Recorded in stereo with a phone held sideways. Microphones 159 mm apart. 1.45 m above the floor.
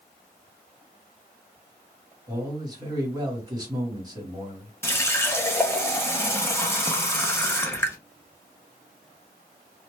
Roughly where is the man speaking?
Right.